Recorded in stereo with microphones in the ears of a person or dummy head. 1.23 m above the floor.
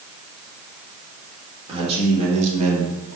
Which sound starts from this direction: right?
A man speaking, at 1.7 s.